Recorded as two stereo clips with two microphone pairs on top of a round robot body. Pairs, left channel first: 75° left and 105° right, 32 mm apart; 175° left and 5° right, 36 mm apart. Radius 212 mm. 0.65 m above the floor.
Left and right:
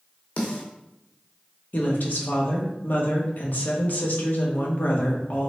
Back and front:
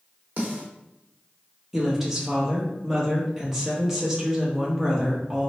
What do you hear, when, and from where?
0.4 s a snare drum: 35° left, 0.8 m
1.7 s a woman speaking: 75° left, 1.4 m